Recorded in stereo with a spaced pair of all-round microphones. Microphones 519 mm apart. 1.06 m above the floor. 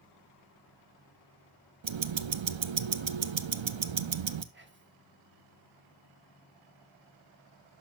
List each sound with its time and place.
1.8 s ticking: 65° right (ahead or behind), 0.6 m
4.5 s whispering: 25° right (ahead or behind), 1.1 m